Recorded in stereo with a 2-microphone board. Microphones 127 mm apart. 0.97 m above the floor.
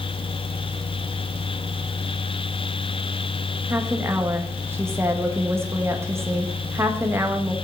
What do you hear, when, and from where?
3.7 s a woman speaking: 20° right (ahead or behind), 1.1 m